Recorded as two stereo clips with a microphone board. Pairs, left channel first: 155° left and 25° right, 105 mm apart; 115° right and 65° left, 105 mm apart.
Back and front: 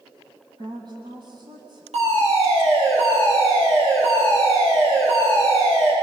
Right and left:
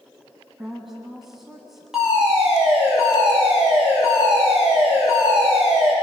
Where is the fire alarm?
20° right, 9 m.